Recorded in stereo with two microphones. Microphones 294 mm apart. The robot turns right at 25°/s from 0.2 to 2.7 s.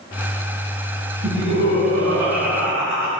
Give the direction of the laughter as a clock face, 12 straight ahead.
5 o'clock.